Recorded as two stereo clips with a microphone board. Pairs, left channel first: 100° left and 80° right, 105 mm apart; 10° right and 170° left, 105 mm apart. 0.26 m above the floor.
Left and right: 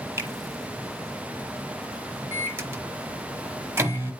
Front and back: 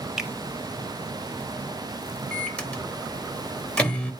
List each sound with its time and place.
0.2 s a finger snap: 110° right, 1.1 m
2.3 s a microwave: 70° right, 1.0 m